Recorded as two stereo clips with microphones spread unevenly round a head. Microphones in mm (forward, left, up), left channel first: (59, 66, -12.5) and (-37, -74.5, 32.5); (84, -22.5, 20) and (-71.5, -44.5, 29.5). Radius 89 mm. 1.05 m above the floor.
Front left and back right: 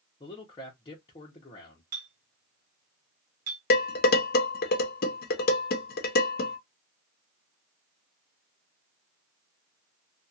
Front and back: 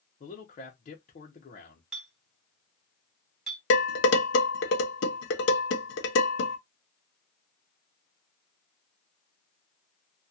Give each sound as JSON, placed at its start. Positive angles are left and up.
{"t": 0.2, "sound": "a man speaking", "azimuth_deg": 20, "distance_m": 0.7}
{"t": 1.9, "sound": "a clink", "azimuth_deg": -85, "distance_m": 1.2}
{"t": 3.7, "sound": "dishes clattering", "azimuth_deg": 20, "distance_m": 0.7}